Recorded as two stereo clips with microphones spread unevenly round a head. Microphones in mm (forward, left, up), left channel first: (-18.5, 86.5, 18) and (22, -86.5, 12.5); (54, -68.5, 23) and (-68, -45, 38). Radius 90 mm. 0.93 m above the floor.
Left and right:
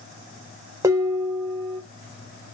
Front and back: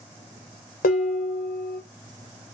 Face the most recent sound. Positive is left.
turn(degrees=-5)